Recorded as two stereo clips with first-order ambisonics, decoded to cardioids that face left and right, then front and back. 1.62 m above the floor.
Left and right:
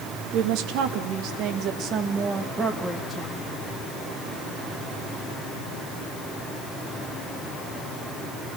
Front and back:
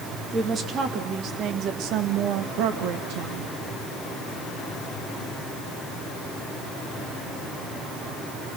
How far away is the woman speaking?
About 2.5 m.